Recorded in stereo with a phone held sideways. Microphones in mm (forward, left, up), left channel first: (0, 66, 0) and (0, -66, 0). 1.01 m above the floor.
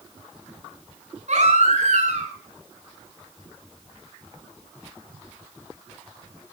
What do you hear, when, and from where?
1.3 s a baby crying: 60° right (ahead or behind), 6.5 m